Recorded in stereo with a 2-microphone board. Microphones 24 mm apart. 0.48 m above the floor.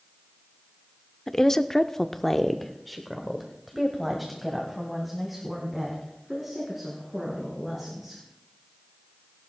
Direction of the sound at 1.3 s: 15° left (ahead or behind).